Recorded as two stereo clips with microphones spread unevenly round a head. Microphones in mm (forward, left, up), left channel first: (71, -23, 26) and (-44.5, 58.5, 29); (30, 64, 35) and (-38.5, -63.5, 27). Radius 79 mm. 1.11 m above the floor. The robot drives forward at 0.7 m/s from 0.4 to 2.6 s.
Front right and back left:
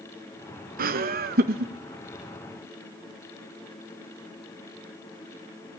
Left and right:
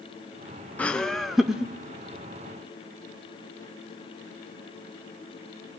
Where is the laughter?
145° left, 1.0 m; by 1.7 s 160° left, 1.6 m.